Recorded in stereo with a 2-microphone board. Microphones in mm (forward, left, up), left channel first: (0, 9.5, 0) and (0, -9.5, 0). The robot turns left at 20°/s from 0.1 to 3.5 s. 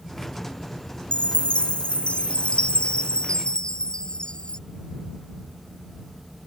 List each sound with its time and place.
1.1 s a chime: 100° left; by 4.6 s 50° left